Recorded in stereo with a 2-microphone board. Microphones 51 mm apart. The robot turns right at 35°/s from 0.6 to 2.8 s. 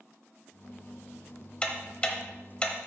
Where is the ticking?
20° left (ahead or behind), 0.8 m.